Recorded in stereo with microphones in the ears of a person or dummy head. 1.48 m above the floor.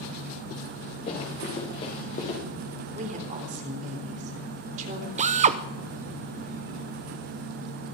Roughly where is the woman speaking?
Right.